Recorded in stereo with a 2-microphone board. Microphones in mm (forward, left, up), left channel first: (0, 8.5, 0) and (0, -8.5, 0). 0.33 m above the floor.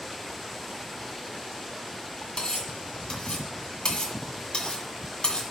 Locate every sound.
2.4 s cutlery clinking: 60° left (ahead or behind), 1.7 m